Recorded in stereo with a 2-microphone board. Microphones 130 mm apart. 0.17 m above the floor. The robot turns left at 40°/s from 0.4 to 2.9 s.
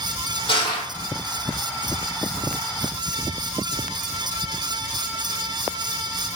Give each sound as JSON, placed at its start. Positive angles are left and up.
{"t": 0.5, "sound": "crushing", "side_deg": 40, "distance_m": 4.0}